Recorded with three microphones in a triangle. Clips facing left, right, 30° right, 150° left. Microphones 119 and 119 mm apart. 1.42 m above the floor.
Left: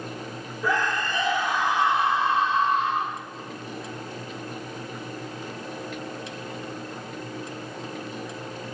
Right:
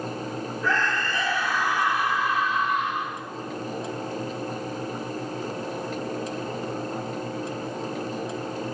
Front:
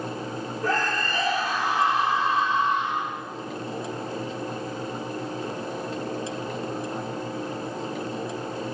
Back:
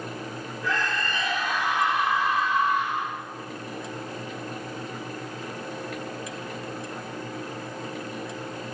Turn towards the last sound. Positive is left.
turn(degrees=35)